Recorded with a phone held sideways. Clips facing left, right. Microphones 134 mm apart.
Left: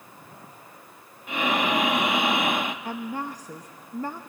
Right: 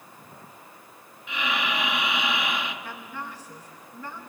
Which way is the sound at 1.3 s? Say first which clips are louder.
Left 5 dB; 45° left (ahead or behind).